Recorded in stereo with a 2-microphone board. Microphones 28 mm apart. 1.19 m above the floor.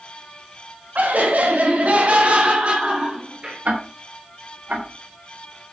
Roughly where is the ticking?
Right.